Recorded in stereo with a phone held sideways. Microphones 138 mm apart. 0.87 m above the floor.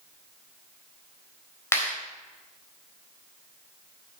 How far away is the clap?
About 3.5 m.